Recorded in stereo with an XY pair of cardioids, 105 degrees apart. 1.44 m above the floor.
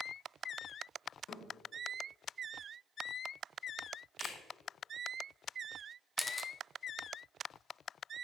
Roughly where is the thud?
Left.